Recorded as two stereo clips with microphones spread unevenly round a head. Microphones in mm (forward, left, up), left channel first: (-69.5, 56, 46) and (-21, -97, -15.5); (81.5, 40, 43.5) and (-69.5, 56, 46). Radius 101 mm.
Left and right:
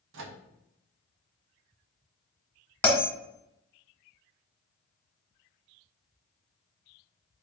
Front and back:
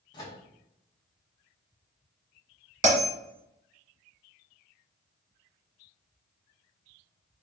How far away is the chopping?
I don't hear chopping.